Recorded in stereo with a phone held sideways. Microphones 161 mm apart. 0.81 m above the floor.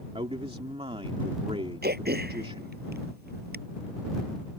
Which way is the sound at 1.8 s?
85° right.